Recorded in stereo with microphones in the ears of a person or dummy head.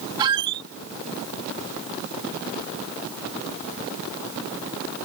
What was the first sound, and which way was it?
A squeak, 30° right (ahead or behind).